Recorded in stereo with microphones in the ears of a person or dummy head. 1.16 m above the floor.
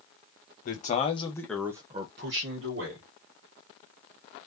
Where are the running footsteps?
No running footsteps in this recording.